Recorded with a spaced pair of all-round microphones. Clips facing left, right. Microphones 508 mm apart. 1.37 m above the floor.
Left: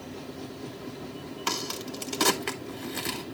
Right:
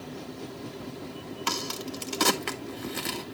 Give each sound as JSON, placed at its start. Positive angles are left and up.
{"t": 1.5, "sound": "a crack", "side_deg": 0, "distance_m": 1.0}